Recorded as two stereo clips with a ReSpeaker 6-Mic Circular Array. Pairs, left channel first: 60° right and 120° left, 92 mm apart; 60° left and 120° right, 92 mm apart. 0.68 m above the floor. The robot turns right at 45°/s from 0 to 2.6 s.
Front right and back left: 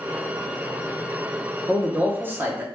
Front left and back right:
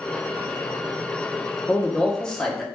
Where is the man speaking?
105° left, 0.9 m; by 2.6 s 145° left, 0.9 m.